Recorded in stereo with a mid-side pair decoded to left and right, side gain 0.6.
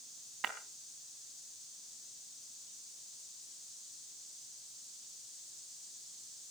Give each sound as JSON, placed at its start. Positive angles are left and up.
{"t": 0.4, "sound": "breaking glass", "azimuth_deg": -45, "distance_m": 3.0}